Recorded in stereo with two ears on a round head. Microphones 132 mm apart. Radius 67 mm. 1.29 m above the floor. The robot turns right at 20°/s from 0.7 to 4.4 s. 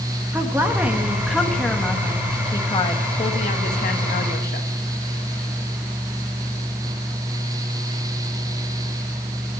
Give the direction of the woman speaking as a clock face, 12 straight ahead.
12 o'clock.